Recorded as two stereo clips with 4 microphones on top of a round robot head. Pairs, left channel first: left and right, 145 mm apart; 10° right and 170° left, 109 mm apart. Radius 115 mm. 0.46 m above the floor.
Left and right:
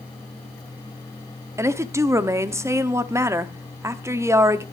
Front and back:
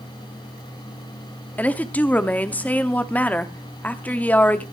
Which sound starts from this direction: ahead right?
A woman speaking, at 1.6 s.